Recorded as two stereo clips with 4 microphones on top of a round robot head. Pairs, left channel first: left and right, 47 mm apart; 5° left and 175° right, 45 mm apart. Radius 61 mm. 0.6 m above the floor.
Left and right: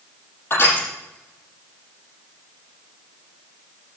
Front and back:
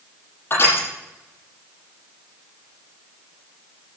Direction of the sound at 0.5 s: 45° left.